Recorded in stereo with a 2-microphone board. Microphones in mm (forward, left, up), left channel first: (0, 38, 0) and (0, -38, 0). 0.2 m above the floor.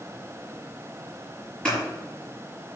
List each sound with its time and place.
1.6 s scissors: 10° left (ahead or behind), 4.5 m